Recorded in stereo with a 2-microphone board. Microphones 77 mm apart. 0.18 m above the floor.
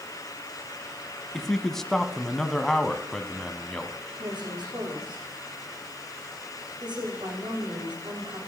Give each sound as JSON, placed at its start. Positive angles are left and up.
{"t": 1.3, "sound": "a man speaking", "side_deg": 5, "distance_m": 1.0}
{"t": 4.2, "sound": "a woman speaking", "side_deg": -80, "distance_m": 9.5}